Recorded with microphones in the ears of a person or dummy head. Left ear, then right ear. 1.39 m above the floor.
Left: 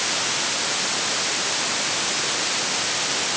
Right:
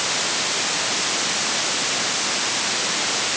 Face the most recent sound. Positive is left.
No sound to turn to.